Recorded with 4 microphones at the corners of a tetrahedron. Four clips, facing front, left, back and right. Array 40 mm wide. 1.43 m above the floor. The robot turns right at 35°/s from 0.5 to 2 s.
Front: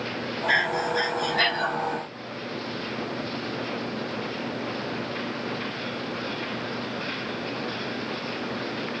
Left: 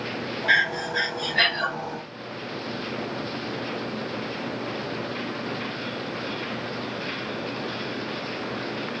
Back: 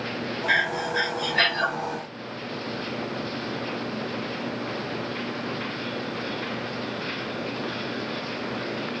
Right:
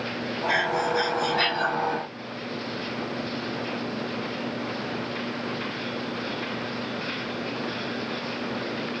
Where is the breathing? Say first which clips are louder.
Left 3 dB, even; 105° left, 2.5 m; by 1.7 s 150° left, 2.5 m.